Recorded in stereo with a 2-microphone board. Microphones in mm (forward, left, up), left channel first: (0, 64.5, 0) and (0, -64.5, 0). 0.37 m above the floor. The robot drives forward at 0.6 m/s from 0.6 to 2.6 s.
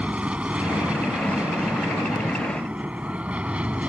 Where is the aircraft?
10° right (ahead or behind).